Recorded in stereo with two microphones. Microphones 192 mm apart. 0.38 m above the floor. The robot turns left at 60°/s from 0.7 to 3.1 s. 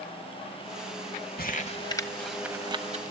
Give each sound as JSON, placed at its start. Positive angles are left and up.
{"t": 1.4, "sound": "crumpling", "side_deg": 50, "distance_m": 0.9}